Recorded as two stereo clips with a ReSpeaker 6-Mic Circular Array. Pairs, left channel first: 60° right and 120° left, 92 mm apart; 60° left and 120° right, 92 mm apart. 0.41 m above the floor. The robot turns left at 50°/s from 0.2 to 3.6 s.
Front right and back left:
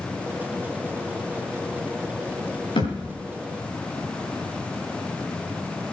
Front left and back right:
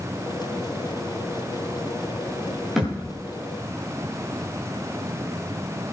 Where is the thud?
35° right, 7.5 m; by 3.2 s 55° right, 7.5 m.